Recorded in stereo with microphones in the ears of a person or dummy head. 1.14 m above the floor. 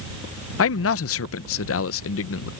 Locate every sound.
0.6 s a man speaking: 65° left (ahead or behind)